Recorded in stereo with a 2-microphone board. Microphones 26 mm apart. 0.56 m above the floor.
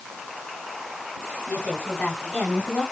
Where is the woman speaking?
80° left, 5 m; by 2.8 s 75° left (ahead or behind), 3.5 m.